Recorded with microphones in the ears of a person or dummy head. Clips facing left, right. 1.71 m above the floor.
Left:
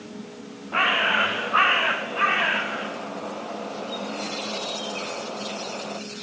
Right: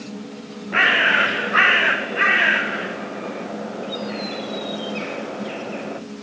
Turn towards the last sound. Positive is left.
turn(degrees=-20)  # may be behind; listen again after turning